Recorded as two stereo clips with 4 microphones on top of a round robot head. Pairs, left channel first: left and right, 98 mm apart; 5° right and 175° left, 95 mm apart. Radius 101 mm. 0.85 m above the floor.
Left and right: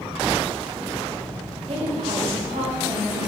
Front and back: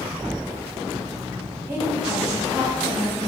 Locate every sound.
1.7 s a woman speaking: 115° right, 3.5 m; by 3.3 s 100° right, 5 m